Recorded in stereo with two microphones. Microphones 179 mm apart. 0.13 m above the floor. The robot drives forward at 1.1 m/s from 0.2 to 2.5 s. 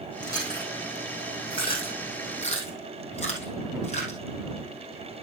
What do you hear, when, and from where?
0.2 s chewing: 25° left (ahead or behind), 5 m; by 4.2 s 40° left (ahead or behind), 3 m